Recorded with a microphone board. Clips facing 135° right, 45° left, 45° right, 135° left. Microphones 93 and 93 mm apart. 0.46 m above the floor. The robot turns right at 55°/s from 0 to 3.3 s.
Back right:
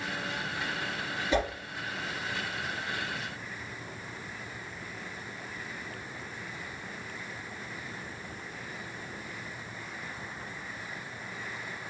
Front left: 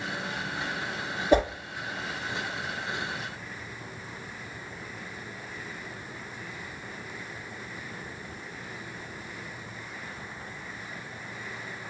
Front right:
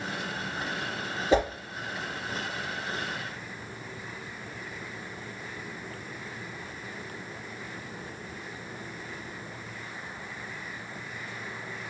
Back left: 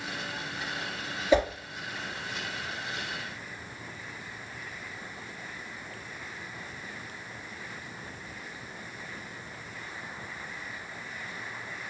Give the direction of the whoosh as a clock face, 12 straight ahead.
12 o'clock.